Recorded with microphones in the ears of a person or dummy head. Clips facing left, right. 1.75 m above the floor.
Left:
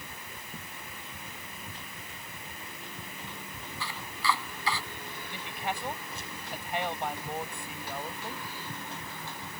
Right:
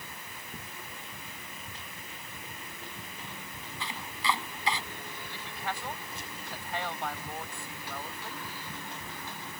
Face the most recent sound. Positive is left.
turn(degrees=15)  # may be behind; listen again after turning